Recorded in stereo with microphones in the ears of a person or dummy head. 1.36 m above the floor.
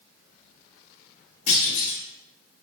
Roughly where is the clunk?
Left.